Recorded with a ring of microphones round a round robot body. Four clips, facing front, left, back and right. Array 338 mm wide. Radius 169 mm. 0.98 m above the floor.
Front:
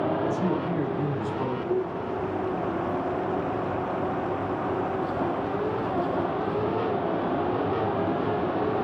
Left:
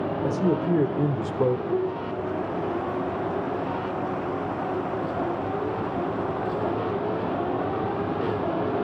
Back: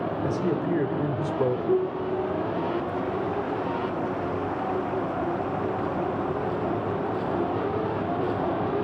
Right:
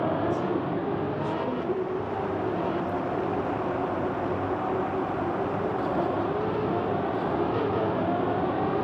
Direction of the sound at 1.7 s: 165° right.